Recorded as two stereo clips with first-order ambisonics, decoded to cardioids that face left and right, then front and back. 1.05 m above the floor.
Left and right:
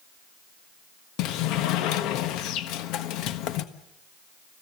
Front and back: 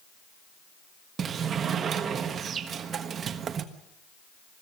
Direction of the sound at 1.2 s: 120° left.